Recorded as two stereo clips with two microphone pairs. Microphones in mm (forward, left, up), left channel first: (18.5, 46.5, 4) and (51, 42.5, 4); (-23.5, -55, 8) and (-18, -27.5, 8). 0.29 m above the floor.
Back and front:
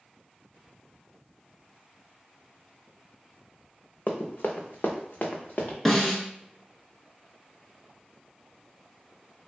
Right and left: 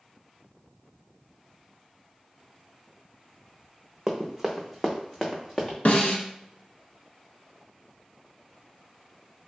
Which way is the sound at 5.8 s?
105° right.